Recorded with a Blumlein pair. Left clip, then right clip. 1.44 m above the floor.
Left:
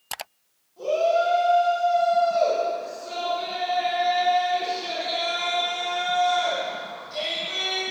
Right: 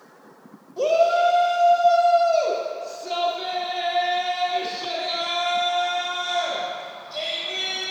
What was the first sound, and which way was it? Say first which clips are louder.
A shout: right 3 dB; 45° right.